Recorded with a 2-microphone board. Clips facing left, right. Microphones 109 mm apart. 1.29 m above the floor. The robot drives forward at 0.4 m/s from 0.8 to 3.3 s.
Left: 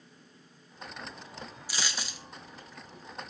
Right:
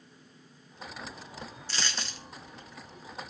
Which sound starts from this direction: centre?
A dropped coin, at 1.7 s.